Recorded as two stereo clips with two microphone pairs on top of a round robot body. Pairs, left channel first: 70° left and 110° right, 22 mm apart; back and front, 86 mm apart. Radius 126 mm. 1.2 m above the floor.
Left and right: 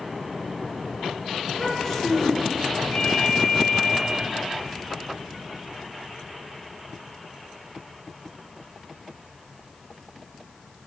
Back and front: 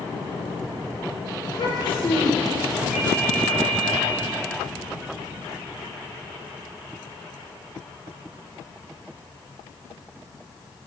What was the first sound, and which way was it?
A child speaking, 140° left.